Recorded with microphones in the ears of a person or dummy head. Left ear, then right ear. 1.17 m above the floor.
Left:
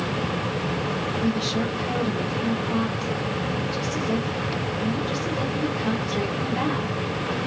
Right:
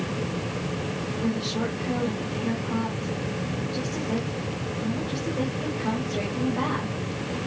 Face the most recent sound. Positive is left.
turn(degrees=85)